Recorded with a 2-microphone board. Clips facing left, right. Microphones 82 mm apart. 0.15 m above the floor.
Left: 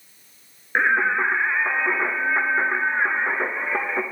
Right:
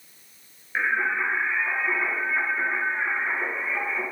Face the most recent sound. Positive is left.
turn(degrees=55)  # may be behind; listen again after turning